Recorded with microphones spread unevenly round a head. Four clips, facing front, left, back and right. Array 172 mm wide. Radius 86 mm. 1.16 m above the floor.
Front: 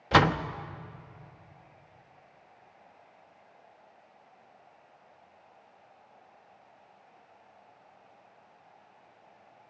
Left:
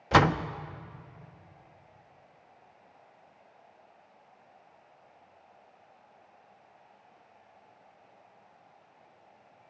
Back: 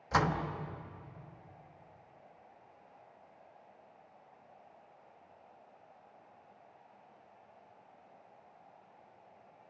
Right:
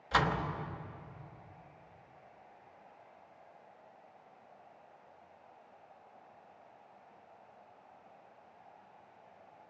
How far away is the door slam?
About 1.1 m.